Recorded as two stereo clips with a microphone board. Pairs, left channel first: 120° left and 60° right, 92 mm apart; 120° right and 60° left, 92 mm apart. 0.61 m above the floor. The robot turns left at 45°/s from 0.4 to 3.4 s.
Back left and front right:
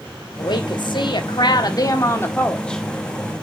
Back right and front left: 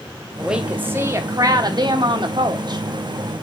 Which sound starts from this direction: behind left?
A woman speaking, at 0.4 s.